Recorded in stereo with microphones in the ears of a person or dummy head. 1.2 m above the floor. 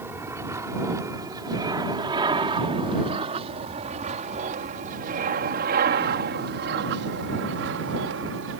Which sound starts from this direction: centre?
An aircraft, at 0.0 s.